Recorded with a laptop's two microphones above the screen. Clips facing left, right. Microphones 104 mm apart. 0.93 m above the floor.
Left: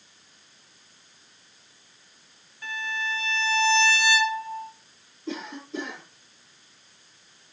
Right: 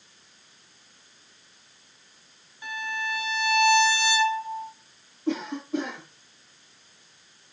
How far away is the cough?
About 9.5 m.